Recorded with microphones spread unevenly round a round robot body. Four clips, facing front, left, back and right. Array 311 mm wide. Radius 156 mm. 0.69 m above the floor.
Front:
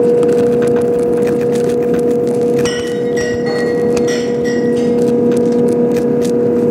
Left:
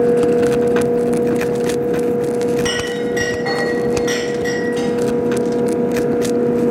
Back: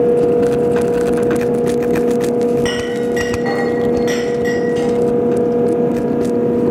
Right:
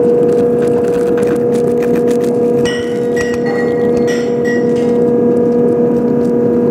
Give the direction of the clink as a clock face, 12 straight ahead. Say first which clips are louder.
Right 6 dB, front 2 dB; 7 o'clock.